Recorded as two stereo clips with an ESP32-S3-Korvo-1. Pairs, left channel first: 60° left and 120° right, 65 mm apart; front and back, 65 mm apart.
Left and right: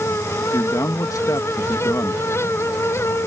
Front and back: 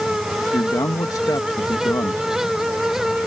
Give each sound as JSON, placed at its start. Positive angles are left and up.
{"t": 0.5, "sound": "a man speaking", "azimuth_deg": 30}